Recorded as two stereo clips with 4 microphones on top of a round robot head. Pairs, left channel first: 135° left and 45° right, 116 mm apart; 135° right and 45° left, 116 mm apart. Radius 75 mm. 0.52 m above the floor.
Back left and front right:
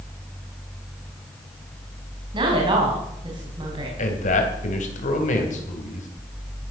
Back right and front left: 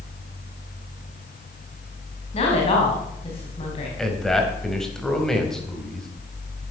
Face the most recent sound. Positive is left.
turn(degrees=140)